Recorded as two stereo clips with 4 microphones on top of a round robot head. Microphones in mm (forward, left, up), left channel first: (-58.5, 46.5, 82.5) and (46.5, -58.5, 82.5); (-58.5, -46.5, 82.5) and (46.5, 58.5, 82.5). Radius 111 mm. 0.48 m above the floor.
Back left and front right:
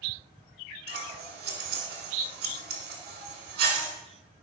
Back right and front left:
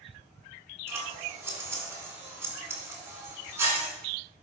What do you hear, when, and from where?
0.9 s scissors: 30° right, 1.7 m